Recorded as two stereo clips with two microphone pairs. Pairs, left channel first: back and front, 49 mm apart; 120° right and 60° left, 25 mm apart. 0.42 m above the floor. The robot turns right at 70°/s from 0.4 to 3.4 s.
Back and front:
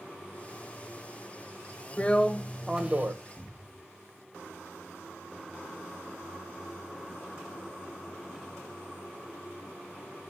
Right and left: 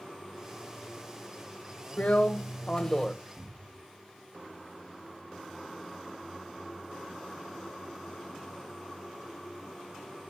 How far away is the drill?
About 1.9 m.